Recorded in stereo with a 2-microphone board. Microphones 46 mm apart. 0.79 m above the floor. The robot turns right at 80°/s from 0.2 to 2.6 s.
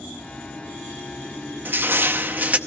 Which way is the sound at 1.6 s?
120° right.